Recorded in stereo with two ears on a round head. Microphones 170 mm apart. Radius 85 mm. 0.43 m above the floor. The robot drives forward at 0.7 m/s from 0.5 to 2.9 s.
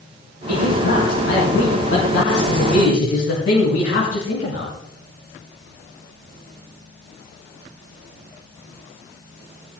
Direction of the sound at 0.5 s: 60° left (ahead or behind).